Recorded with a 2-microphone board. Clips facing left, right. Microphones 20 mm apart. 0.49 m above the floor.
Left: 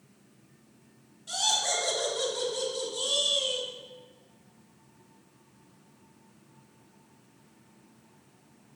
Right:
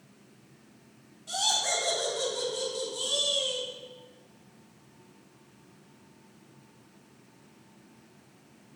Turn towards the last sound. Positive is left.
turn(degrees=10)  # may be behind; listen again after turning